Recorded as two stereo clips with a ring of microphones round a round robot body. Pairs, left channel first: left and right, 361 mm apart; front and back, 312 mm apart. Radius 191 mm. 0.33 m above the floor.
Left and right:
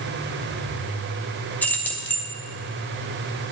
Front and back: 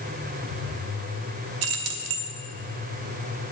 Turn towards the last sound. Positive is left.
turn(degrees=175)